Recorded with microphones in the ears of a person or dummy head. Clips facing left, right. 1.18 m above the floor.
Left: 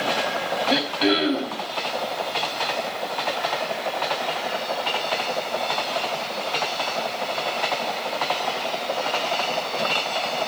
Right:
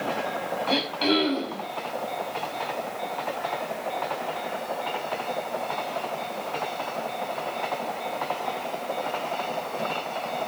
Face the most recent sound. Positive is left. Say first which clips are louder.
# left 3 dB
turn(degrees=20)  # may be behind; listen again after turning